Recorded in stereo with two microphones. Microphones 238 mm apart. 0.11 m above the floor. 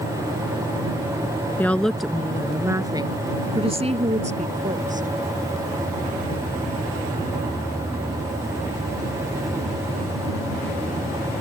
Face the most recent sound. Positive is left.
turn(degrees=-35)  # may be behind; listen again after turning